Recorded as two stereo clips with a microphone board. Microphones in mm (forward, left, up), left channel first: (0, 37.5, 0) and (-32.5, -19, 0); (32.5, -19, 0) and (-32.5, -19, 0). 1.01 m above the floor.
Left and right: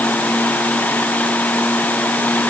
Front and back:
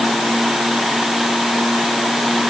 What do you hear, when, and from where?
Only background noise.